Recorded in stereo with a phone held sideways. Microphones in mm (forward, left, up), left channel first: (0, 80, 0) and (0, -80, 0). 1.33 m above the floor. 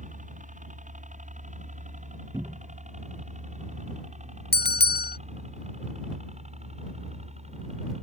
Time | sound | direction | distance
0.0 | a helicopter | 50° right (ahead or behind) | ?
2.3 | a cupboard door | 20° right (ahead or behind) | ?
4.5 | a bell | 80° left | ?